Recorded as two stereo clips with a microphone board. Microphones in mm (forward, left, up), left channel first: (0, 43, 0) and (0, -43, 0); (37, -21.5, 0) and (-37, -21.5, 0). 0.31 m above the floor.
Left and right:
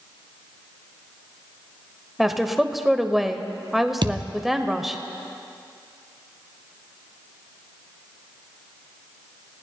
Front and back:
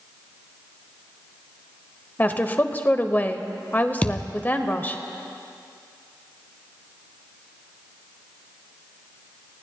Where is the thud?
70° right, 1.2 m.